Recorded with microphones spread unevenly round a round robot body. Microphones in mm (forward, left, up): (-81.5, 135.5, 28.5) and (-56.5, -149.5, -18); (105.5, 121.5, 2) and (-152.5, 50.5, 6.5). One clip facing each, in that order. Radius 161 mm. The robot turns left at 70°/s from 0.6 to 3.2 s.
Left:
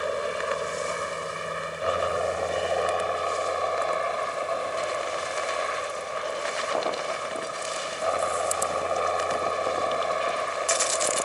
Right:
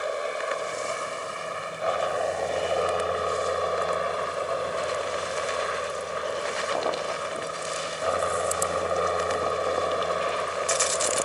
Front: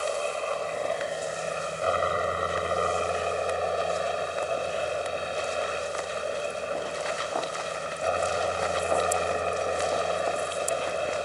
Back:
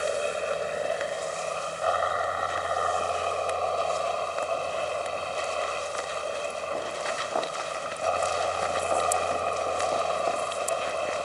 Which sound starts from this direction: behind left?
A helicopter, at 0.0 s.